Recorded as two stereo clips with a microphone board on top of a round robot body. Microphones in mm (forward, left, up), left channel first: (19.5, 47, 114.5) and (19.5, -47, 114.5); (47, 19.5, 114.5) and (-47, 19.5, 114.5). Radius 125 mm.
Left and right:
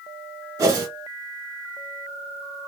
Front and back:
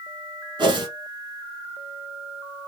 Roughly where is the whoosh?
Behind right.